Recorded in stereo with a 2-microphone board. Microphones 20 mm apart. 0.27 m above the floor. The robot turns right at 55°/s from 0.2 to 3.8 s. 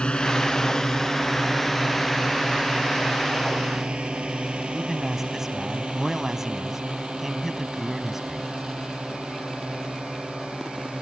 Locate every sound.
0.0 s a drone: 60° left (ahead or behind); by 11.0 s 75° right (ahead or behind)
4.7 s a man speaking: 20° right (ahead or behind)